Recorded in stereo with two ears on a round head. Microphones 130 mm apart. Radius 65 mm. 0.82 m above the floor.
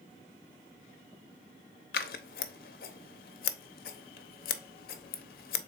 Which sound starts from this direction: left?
Scissors, at 1.9 s.